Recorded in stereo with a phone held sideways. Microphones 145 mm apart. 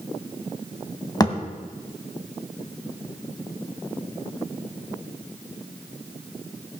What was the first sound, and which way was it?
A thud, 25° left (ahead or behind).